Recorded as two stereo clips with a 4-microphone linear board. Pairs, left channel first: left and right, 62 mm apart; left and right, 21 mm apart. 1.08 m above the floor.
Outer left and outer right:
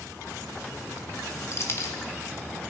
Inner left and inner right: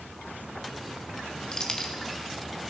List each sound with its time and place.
1.5 s keys jangling: 45° left (ahead or behind), 1.6 m